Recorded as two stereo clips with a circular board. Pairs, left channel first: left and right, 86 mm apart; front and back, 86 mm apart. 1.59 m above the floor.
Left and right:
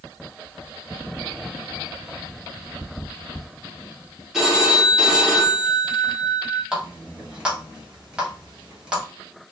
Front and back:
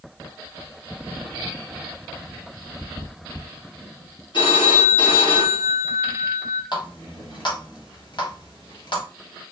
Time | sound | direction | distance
4.3 | a phone ringing | 5° right | 1.5 m
6.7 | a running tap | 10° right | 1.5 m